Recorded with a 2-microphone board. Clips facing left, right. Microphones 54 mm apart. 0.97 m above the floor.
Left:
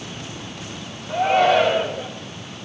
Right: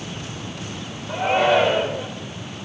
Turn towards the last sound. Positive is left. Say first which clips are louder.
# left 2 dB
turn(degrees=-20)  # may be behind; listen again after turning